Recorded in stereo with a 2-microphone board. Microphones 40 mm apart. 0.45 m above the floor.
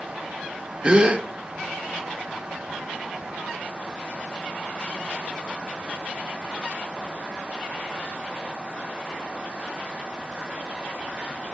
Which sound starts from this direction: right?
A gasp, at 0.8 s.